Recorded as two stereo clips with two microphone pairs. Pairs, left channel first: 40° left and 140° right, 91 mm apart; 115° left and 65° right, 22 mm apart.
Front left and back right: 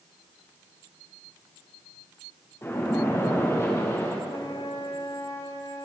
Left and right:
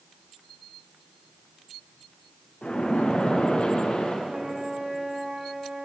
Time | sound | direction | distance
2.6 | a splash | 95° left | 4.5 m
4.3 | a flute | 5° left | 3.5 m